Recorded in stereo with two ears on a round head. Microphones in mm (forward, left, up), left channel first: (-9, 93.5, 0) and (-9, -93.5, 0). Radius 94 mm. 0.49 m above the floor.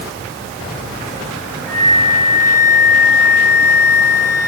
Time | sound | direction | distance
1.7 | a flute | 55° left (ahead or behind) | 8.5 m